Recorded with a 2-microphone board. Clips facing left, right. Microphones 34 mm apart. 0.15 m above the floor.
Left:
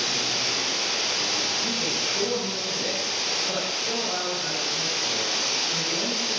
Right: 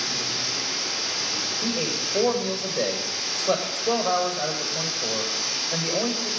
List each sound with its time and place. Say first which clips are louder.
0.0 s running water: left 2 dB; 65° left (ahead or behind), 3.5 m
1.6 s a man speaking: even; 80° right, 7 m